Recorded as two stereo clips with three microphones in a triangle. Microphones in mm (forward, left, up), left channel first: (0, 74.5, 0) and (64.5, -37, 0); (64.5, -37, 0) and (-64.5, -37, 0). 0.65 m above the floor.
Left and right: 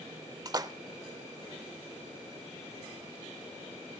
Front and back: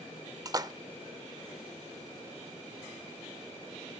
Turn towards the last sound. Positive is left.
turn(degrees=-120)